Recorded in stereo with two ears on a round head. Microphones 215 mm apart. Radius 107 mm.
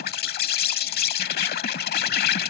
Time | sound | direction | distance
0.0 | an insect | 40° left (ahead or behind) | ?